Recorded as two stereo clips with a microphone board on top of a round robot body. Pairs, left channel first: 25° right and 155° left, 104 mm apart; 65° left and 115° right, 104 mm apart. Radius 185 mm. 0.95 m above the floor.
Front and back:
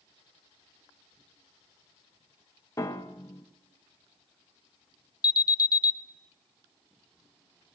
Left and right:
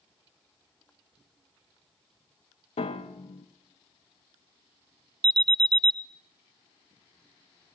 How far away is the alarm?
About 1.0 m.